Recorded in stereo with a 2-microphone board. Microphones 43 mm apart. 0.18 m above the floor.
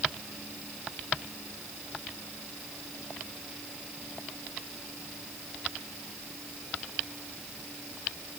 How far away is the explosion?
No explosion in this recording.